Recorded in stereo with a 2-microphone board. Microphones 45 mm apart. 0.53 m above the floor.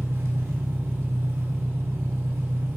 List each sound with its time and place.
0.0 s an engine running: 80° right, 0.7 m